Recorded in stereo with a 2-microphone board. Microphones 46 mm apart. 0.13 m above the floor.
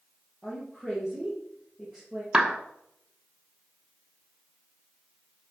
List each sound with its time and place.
0.4 s a woman speaking: 20° right (ahead or behind), 3 m
2.3 s a clap: 20° right (ahead or behind), 0.9 m